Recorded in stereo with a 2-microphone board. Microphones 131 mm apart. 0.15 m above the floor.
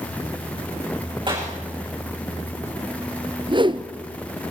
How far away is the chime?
I don't hear a chime.